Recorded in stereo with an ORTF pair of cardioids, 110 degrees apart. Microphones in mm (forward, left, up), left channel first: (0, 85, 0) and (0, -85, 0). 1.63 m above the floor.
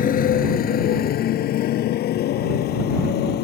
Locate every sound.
0.0 s a motorcycle: 55° left; by 3.4 s 75° left